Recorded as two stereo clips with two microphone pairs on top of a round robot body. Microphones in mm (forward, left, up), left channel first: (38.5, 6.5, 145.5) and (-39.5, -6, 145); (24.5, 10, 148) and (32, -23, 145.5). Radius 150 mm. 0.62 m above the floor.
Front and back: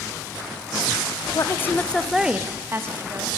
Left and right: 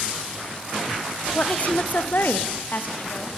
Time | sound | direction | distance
1.4 | a woman speaking | 50° left | 0.8 m